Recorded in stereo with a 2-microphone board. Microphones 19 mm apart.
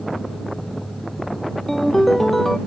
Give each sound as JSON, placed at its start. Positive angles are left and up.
{"t": 1.7, "sound": "a ringtone", "side_deg": 10}